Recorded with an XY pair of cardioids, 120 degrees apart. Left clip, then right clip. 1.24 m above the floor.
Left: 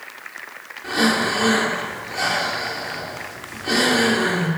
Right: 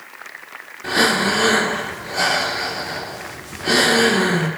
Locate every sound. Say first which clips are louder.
0.8 s breathing: right 3 dB; 55° right, 1.1 m